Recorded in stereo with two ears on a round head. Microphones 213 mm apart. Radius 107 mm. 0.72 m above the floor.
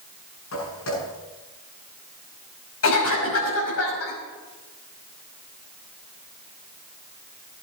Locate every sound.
0.5 s footsteps: 60° left (ahead or behind), 8.5 m
2.8 s a cough: 60° left (ahead or behind), 5.5 m